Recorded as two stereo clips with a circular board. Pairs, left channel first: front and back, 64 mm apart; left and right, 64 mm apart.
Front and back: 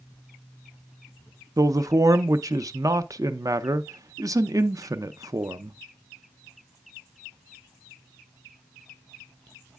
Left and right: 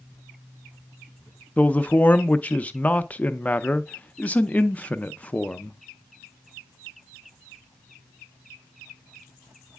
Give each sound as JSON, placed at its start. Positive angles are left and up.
{"t": 1.6, "sound": "a man speaking", "azimuth_deg": 155, "distance_m": 0.5}